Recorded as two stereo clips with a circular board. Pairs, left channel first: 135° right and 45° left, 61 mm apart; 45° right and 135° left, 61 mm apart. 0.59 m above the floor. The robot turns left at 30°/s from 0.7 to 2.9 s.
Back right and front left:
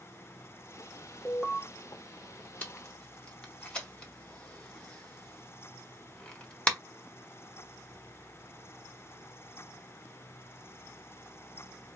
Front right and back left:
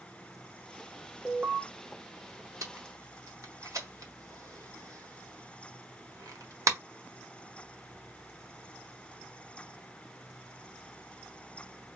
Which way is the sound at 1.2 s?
155° left.